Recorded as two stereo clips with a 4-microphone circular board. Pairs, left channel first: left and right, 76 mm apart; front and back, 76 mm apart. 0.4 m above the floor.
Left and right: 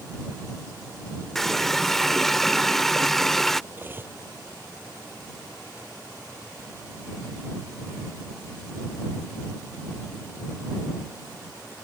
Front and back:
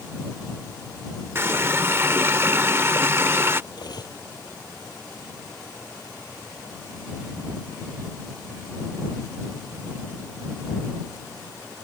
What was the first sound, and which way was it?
A running tap, 175° left.